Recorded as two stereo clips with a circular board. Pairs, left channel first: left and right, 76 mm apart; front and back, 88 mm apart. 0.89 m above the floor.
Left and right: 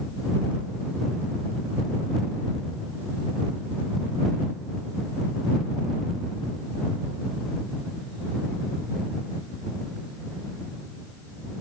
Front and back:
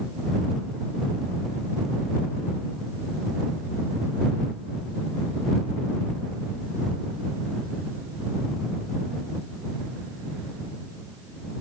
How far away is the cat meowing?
No cat meowing in this recording.